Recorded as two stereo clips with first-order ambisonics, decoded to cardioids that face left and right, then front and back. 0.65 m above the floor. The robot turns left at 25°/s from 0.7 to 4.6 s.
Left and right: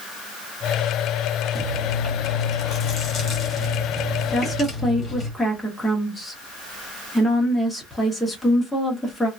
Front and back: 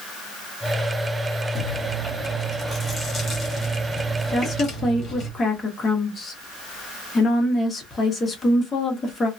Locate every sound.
1.6 s chewing: 100° left, 1.2 m; by 5.3 s 25° left, 1.2 m
4.3 s a woman speaking: 20° left, 0.8 m; by 9.3 s 10° left, 0.8 m